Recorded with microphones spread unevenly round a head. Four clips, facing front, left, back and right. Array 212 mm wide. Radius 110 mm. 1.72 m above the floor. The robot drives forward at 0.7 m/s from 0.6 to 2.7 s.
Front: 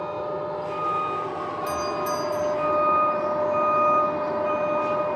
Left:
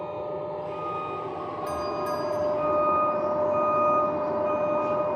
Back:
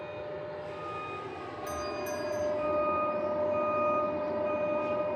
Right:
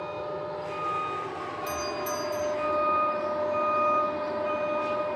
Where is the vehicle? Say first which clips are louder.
Left 2 dB, front 10 dB; 15° left; by 5.2 s 30° left.